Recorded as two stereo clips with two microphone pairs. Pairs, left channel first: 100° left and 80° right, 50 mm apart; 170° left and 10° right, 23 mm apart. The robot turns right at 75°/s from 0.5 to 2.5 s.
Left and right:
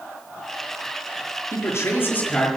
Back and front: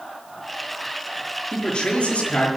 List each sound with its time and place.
1.5 s a man speaking: 110° left, 4.5 m; by 2.5 s 175° right, 4.5 m